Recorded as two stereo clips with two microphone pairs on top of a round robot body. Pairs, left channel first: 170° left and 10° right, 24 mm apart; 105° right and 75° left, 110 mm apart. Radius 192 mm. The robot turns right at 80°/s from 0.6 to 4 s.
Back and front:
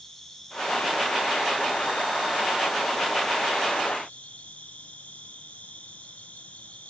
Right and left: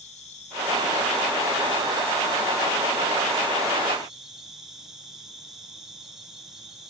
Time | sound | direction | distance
0.0 | an insect | 110° right | 3 m